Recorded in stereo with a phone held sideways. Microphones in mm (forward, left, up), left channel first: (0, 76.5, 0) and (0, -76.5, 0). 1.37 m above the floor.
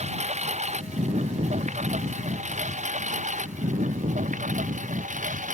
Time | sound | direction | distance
0.0 | a lawn mower | 45° right (ahead or behind) | ?